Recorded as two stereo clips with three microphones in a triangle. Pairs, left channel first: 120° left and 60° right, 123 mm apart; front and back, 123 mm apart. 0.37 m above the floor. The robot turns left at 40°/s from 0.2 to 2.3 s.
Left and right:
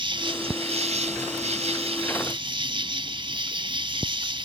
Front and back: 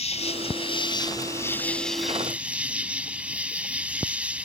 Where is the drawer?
No drawer in this recording.